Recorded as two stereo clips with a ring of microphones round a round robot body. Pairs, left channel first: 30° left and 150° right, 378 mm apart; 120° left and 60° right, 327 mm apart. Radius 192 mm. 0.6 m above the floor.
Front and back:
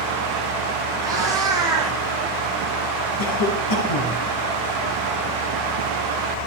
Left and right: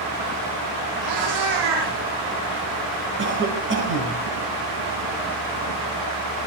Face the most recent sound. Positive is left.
turn(degrees=-5)